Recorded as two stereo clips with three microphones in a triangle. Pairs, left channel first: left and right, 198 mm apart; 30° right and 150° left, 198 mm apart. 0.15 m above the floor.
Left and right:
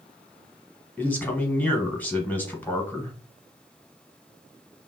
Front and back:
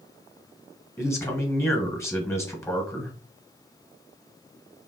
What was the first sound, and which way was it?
A man speaking, 25° left.